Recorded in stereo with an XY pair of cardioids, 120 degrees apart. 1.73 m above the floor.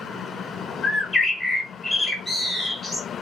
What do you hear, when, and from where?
0.8 s a bird: 30° left, 1.0 m